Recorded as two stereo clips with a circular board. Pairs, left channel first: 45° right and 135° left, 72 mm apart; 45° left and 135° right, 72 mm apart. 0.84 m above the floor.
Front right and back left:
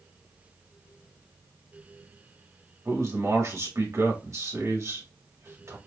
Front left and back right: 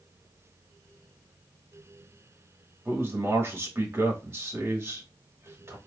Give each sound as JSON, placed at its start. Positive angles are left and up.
{"t": 2.9, "sound": "a man speaking", "azimuth_deg": 175, "distance_m": 2.0}